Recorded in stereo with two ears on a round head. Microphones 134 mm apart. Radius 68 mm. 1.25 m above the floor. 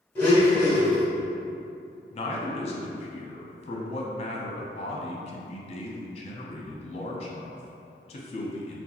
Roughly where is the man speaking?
Left.